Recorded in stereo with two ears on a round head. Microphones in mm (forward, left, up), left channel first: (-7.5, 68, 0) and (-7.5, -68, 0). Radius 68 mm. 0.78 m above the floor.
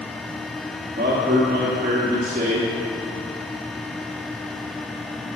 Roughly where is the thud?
No thud in this recording.